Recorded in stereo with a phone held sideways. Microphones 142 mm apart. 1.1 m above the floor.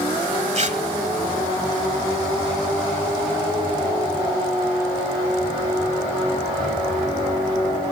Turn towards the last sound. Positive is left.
turn(degrees=-50)  # may be behind; listen again after turning